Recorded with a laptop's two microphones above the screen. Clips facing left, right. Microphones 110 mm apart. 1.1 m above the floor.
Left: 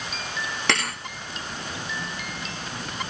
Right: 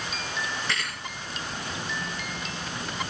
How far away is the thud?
About 4.5 m.